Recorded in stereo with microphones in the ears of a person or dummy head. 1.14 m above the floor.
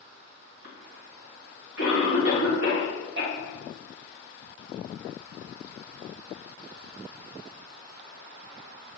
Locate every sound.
0.6 s a cough: 80° right, 2.0 m